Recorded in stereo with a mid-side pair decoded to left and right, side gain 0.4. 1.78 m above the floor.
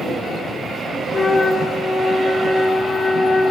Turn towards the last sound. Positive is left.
turn(degrees=40)